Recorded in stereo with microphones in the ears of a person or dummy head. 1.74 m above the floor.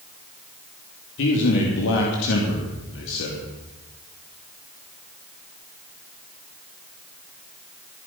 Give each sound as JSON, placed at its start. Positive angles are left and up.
{"t": 1.2, "sound": "a man speaking", "side_deg": 65, "distance_m": 3.0}